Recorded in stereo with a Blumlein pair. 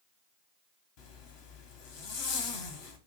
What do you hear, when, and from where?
1.0 s a zipper: 45° left, 0.6 m